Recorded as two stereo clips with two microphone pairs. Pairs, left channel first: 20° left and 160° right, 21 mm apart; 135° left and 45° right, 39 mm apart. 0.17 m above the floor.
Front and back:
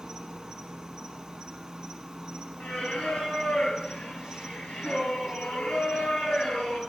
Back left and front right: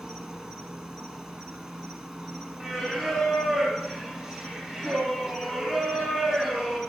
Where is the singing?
15° left, 3.5 m.